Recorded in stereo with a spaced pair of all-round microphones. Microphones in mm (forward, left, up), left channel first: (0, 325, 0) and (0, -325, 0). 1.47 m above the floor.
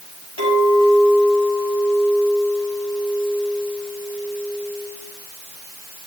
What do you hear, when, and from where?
0.4 s a clink: 65° left (ahead or behind), 6.5 m